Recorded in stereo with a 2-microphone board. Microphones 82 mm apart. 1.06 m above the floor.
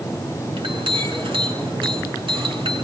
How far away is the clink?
About 8.5 m.